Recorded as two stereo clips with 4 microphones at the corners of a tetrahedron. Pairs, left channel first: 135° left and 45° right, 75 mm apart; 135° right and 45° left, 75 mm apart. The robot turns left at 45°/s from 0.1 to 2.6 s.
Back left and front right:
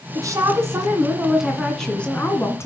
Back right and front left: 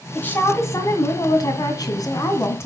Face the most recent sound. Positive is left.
turn(degrees=180)